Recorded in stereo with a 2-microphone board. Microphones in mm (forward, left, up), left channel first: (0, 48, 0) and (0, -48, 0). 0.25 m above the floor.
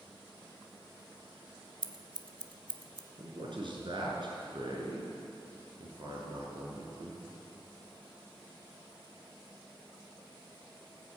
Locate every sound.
1.8 s scissors: 55° right (ahead or behind), 1.0 m
3.2 s a man speaking: 60° right (ahead or behind), 3.5 m